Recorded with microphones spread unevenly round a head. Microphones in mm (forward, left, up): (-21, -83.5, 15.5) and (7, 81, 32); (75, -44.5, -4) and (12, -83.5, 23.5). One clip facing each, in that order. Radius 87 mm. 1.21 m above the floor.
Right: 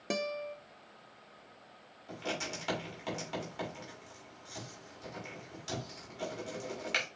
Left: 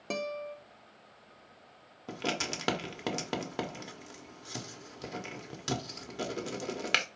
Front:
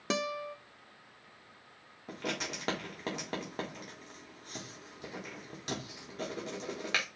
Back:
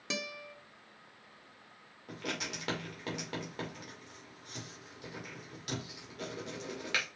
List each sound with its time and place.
0.1 s a guitar: 20° right, 0.5 m
2.1 s writing: 95° left, 1.1 m